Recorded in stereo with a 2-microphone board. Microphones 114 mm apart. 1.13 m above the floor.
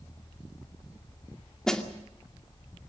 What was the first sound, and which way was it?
A snare drum, 5° left (ahead or behind).